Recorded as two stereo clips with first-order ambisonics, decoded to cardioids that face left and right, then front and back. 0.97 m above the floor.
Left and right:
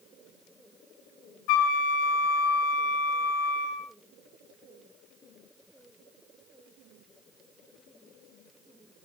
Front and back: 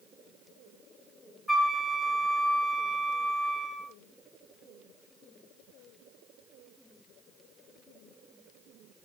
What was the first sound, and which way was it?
A flute, 90° left.